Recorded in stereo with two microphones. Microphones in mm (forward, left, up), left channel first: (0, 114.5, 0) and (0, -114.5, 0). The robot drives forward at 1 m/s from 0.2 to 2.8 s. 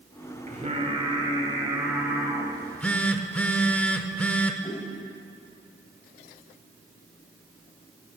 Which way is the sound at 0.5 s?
35° right (ahead or behind).